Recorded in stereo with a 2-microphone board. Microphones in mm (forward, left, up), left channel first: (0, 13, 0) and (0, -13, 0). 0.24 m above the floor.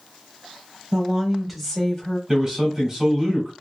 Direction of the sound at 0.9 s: 30° right (ahead or behind).